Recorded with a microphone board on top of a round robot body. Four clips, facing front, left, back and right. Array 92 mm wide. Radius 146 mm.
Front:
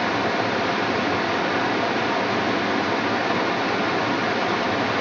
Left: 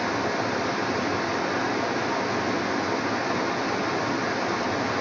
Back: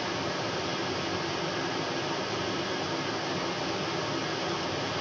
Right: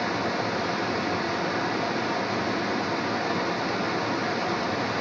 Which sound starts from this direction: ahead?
Running water, at 0.0 s.